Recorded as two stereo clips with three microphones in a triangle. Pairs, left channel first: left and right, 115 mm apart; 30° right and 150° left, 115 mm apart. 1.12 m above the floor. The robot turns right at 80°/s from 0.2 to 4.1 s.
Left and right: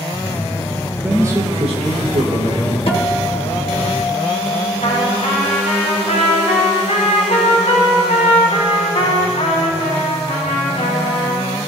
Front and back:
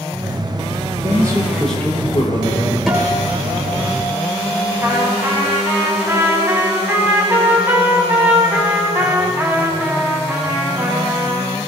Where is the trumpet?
80° left, 3 m.